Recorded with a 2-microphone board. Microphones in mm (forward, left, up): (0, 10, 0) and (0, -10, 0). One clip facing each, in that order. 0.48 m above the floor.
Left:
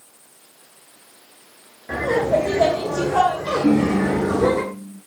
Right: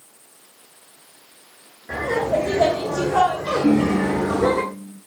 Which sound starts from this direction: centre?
Laughter, at 1.9 s.